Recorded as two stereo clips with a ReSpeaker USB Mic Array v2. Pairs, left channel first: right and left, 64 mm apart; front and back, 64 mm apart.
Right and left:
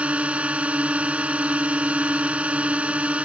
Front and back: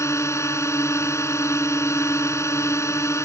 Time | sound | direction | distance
0.0 | a drone | 25° left | ?